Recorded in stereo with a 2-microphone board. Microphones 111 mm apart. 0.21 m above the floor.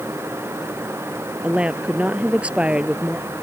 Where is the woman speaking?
10° right (ahead or behind).